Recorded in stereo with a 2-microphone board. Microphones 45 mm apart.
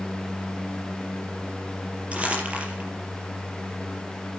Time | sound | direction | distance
2.1 | crumpling | 30° right (ahead or behind) | 5.5 m